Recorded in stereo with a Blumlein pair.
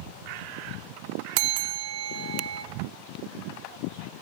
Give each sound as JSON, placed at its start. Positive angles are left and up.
{"t": 1.4, "sound": "a bell", "azimuth_deg": -45, "distance_m": 0.7}